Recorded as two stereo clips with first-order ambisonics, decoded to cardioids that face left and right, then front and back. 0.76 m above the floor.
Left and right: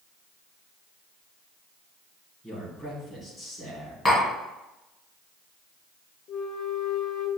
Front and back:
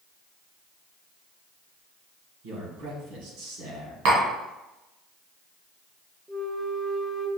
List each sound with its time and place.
2.4 s a man speaking: 175° left, 2 m
4.0 s tapping: 170° left, 2 m
6.3 s a flute: 105° left, 0.5 m